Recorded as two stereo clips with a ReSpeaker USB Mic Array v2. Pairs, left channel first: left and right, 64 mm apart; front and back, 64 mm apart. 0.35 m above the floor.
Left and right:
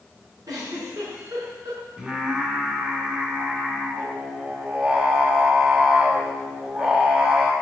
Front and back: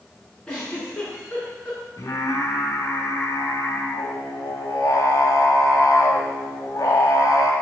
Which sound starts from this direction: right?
A giggle, at 0.5 s.